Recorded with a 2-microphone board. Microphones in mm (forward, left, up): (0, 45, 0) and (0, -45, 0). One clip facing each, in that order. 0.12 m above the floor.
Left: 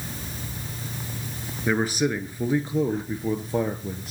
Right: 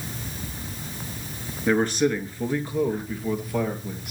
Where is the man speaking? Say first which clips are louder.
Right 2 dB; 5° left (ahead or behind), 1.4 m; by 4.1 s 35° left (ahead or behind), 2 m.